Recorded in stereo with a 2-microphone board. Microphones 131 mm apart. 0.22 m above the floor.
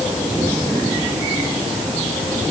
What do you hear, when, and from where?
Only background noise.